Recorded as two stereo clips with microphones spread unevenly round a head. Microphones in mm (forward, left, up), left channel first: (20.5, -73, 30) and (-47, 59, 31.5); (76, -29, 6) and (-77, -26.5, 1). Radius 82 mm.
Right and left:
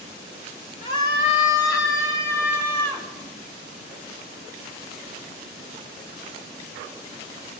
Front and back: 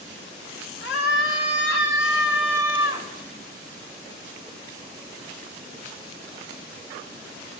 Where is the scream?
5° right, 3 m; by 3.1 s 20° left, 3 m.